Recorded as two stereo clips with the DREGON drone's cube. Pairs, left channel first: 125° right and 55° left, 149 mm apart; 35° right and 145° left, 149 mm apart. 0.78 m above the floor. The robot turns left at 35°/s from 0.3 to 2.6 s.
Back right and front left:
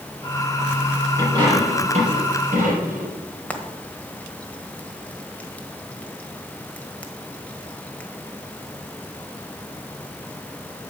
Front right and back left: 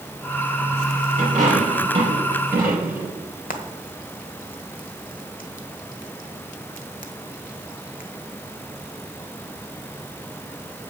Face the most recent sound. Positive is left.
turn(degrees=-45)